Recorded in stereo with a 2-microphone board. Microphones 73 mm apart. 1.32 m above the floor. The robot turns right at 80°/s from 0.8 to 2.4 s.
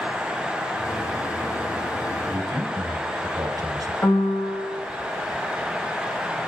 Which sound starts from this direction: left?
A piano, at 4.0 s.